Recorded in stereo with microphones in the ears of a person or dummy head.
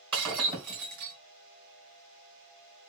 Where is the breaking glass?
30° right (ahead or behind), 3 m.